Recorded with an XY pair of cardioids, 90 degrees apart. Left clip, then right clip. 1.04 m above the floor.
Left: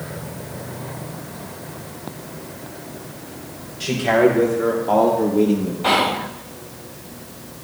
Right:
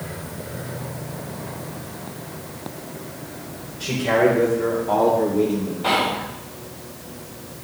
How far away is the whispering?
About 0.5 m.